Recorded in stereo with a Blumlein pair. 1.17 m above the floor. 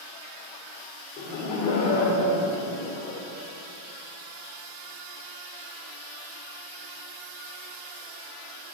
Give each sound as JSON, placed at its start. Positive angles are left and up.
{"t": 1.2, "sound": "laughter", "azimuth_deg": 30, "distance_m": 3.5}